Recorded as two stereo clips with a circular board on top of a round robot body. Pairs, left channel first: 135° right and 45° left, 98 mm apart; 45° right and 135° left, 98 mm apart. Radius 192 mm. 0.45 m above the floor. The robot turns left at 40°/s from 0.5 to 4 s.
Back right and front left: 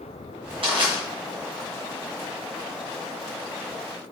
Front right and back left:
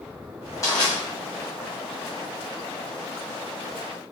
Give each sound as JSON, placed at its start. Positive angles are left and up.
{"t": 0.6, "sound": "crushing", "azimuth_deg": 15, "distance_m": 1.6}